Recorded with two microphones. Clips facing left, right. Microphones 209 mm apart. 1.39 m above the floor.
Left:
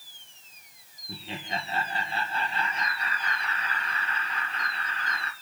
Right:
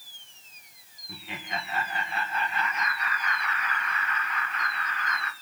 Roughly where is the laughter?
Left.